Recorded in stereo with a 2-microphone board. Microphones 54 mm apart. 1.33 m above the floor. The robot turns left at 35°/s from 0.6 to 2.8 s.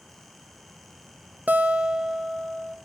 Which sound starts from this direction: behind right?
A guitar, at 1.5 s.